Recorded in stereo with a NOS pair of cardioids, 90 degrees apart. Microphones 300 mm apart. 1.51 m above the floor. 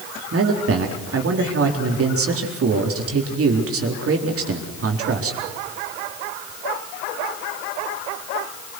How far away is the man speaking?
About 4 m.